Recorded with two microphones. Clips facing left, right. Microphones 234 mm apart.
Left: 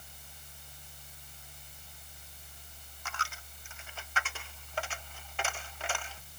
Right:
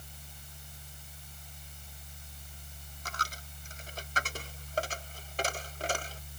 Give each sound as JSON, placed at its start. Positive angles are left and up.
{"t": 3.0, "sound": "a dropped coin", "side_deg": -40}